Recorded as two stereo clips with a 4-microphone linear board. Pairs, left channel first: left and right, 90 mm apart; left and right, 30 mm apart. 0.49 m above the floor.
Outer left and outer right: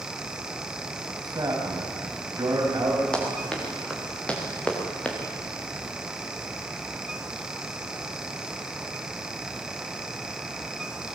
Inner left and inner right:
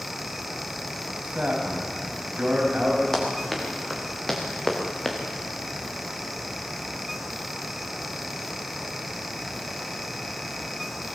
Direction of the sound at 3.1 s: 10° left (ahead or behind).